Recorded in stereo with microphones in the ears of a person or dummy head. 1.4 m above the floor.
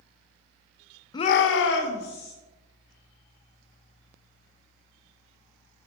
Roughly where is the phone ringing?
I don't hear a phone ringing.